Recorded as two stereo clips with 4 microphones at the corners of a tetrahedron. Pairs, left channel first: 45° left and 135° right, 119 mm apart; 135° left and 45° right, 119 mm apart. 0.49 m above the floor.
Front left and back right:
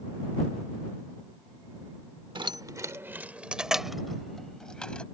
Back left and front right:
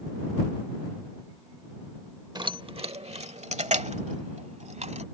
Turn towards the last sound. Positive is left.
turn(degrees=-35)